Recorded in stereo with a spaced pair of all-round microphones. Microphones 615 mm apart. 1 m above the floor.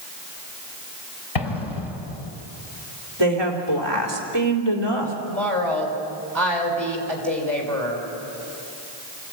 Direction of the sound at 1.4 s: 65° left (ahead or behind).